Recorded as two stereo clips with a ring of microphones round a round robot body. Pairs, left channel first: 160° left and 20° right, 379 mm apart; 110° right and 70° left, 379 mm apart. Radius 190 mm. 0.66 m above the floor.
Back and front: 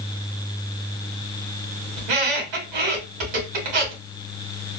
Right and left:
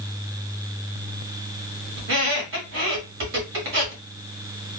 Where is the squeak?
5° left, 2.0 m.